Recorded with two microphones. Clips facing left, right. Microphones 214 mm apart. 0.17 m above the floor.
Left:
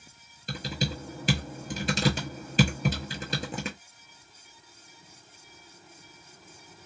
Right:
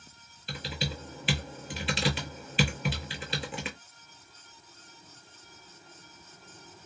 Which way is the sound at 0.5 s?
45° left (ahead or behind).